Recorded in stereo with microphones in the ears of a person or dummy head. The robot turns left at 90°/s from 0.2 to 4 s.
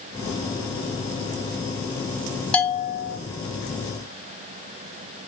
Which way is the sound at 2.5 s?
175° left.